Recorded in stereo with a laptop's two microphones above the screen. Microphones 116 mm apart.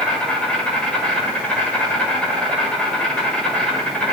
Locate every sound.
0.0 s an insect: 10° left (ahead or behind), 1.9 m